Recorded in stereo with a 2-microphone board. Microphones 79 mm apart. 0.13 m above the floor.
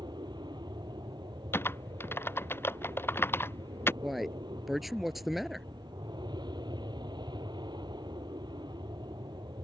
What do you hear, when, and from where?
0.0 s an aircraft: 65° right (ahead or behind)
1.5 s typing on a keyboard: 30° left (ahead or behind)
4.0 s a man speaking: centre (ahead or behind)